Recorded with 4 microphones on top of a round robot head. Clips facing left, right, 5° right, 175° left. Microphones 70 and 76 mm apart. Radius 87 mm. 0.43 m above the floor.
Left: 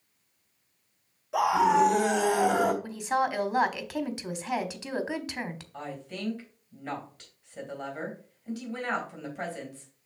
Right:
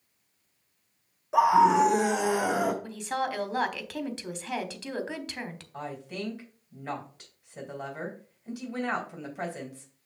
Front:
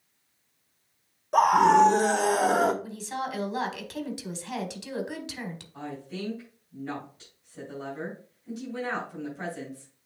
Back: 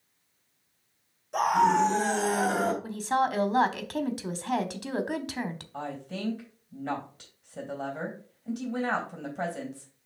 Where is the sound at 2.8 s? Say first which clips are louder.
Left 3 dB, back 7 dB; 165° left, 1.5 m.